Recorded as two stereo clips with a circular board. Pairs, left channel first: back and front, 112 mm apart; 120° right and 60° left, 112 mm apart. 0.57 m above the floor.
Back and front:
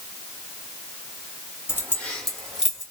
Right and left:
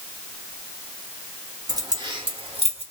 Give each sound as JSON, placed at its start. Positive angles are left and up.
{"t": 1.7, "sound": "keys jangling", "azimuth_deg": 115, "distance_m": 1.1}